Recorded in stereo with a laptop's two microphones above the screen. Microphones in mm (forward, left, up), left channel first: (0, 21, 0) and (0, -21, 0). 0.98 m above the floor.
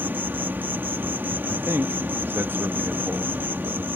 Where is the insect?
50° right (ahead or behind).